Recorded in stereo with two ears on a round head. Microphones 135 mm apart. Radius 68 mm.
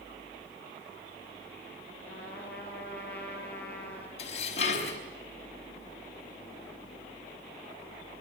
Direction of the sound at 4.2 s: 45° left (ahead or behind).